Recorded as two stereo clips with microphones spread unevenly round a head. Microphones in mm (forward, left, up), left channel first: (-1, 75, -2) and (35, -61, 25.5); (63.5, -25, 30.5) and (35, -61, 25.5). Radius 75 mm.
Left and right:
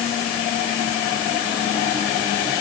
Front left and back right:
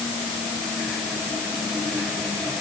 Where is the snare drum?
I don't hear a snare drum.